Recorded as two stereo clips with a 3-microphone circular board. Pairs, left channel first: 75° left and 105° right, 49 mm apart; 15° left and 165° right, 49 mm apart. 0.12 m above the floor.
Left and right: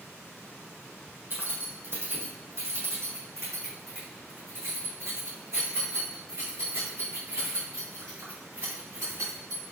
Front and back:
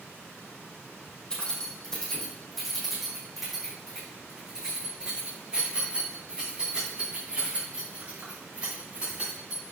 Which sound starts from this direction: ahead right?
Keys jangling, at 1.3 s.